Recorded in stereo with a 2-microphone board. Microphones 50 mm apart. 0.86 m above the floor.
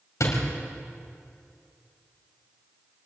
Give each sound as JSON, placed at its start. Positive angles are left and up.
{"t": 0.2, "sound": "a door slam", "side_deg": 80, "distance_m": 4.5}